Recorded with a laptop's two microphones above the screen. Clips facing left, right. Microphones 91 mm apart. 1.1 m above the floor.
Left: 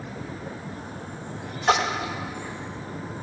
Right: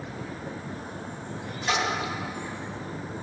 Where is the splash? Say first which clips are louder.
Left 5 dB; 55° left (ahead or behind), 0.5 m.